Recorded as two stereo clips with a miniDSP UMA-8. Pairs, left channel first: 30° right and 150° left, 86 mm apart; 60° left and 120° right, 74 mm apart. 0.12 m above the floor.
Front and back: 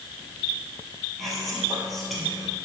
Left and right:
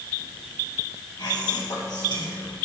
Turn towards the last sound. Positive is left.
turn(degrees=60)